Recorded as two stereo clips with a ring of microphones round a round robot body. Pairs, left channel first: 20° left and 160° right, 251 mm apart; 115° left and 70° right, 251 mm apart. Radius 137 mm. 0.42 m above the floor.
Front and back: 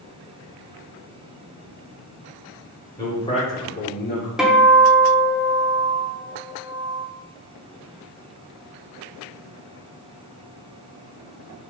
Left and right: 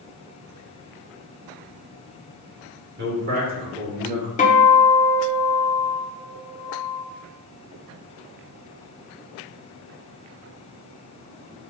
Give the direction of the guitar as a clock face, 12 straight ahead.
8 o'clock.